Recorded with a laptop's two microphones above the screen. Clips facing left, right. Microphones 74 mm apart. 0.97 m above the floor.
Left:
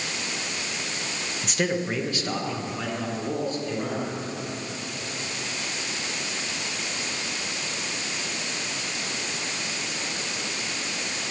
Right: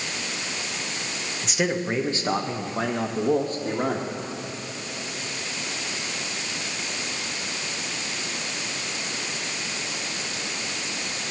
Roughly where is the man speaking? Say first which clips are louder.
Right 1 dB; centre.